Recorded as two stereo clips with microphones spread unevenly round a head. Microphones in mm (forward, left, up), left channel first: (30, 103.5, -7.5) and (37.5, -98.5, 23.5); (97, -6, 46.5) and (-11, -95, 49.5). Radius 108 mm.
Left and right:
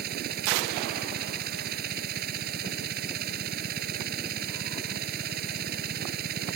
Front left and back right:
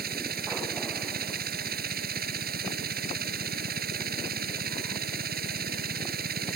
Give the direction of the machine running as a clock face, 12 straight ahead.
5 o'clock.